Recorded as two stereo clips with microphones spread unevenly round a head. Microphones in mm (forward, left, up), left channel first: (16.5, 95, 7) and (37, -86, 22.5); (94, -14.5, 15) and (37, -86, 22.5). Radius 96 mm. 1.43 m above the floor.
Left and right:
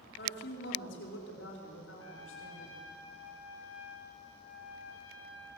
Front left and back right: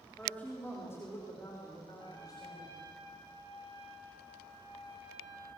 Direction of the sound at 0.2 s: 135° left.